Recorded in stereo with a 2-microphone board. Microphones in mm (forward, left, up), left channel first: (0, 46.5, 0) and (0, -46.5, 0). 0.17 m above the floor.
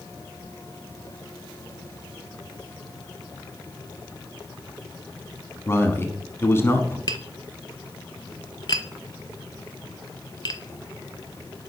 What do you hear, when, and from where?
5.7 s a man speaking: 25° left (ahead or behind), 1.1 m
7.1 s tapping: 50° left (ahead or behind), 0.6 m